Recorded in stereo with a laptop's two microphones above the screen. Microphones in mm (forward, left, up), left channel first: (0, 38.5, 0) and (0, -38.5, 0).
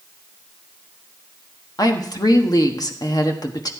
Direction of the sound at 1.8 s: 55° left (ahead or behind).